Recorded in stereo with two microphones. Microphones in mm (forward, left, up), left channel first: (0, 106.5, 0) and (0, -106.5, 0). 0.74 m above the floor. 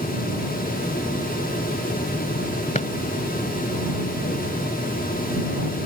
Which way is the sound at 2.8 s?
35° left (ahead or behind).